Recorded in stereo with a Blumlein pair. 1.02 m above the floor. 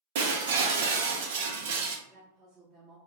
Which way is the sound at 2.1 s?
20° right.